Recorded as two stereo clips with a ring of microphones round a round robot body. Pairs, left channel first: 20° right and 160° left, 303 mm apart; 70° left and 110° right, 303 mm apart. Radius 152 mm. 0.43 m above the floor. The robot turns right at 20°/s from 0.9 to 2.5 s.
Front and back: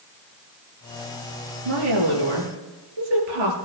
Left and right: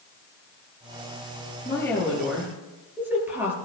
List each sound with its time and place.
1.6 s a woman speaking: 145° left, 7 m; by 3.5 s 165° left, 7 m